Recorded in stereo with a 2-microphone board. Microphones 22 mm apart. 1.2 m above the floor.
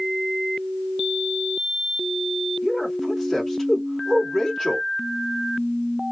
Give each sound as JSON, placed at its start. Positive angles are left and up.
{"t": 2.6, "sound": "a man speaking", "side_deg": 10, "distance_m": 1.8}